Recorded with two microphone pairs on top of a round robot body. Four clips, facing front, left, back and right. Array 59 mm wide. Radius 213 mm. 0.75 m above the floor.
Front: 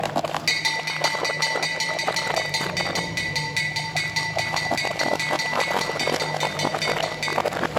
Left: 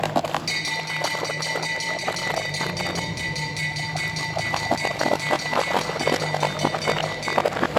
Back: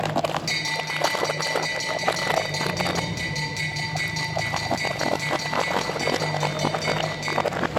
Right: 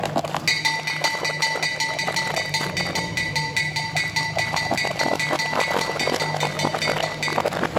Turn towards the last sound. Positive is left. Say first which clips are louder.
# right 4 dB, front 2 dB
turn(degrees=-70)